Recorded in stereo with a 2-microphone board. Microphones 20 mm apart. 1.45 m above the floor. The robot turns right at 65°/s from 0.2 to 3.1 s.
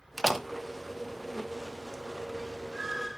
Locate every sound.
0.2 s a door slam: 5° right (ahead or behind), 0.6 m; by 0.5 s 15° right (ahead or behind), 0.6 m